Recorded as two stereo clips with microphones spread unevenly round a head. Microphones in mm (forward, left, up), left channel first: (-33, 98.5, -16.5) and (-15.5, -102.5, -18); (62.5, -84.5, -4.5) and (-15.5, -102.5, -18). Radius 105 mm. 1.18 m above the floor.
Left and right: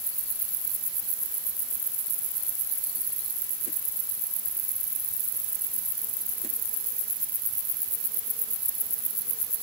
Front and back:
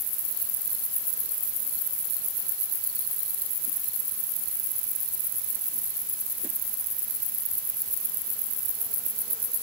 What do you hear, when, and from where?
Only background noise.